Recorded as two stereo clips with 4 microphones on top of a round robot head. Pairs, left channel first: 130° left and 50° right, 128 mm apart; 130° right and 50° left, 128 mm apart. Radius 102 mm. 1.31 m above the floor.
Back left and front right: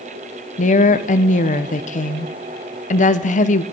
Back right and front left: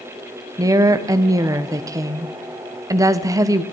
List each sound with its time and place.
0.6 s a woman speaking: 110° left, 1.0 m